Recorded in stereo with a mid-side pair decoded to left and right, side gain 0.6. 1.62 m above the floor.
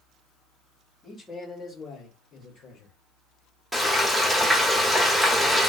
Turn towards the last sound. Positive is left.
turn(degrees=0)